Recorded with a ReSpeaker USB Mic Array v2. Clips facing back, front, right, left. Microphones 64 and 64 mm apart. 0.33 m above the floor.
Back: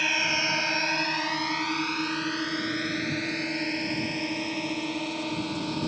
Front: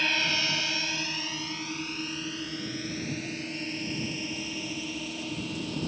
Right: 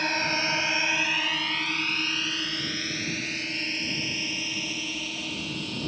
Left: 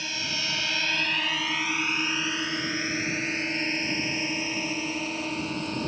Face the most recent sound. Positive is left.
turn(degrees=145)